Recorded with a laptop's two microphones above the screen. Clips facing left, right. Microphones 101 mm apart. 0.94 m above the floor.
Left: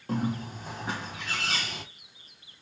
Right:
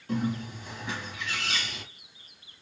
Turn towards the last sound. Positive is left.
turn(degrees=40)  # may be behind; listen again after turning